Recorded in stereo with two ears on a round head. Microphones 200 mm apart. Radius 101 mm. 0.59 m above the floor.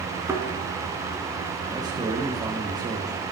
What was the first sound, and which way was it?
A thud, 15° right (ahead or behind).